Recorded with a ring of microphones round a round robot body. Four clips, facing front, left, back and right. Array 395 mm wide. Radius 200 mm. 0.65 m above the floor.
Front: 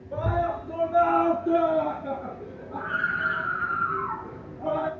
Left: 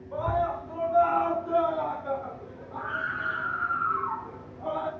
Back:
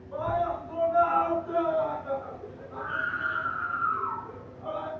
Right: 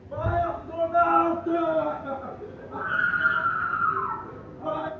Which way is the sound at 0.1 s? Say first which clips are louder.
Right 1 dB, front 2 dB; 35° right.